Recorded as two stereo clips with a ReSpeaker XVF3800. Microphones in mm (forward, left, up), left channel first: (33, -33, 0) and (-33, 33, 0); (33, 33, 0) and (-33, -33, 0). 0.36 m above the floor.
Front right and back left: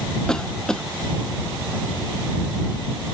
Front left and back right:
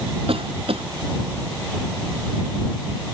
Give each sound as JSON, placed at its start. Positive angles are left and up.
{"t": 0.3, "sound": "a cough", "azimuth_deg": -125}